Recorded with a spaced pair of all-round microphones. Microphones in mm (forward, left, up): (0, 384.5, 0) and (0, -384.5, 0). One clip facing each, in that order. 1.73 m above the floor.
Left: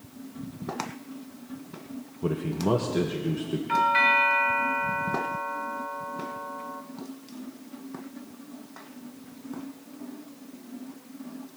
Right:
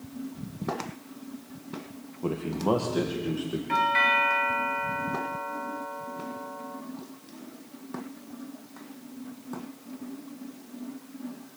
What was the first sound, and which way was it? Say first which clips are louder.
A man speaking: left 1 dB; 45° left (ahead or behind).